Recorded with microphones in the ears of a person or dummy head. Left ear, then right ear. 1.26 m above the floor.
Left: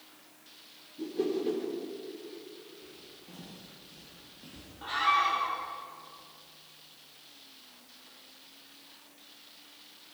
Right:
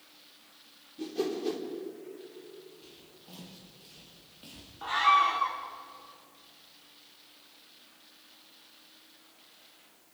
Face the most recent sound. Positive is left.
turn(degrees=-35)  # may be behind; listen again after turning